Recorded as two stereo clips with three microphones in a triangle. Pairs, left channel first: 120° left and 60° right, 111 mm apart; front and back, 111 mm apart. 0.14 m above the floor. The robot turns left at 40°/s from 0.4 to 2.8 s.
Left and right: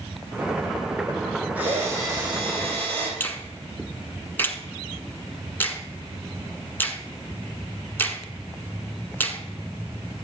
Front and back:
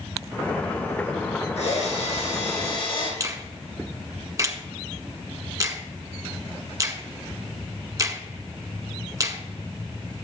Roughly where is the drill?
Ahead.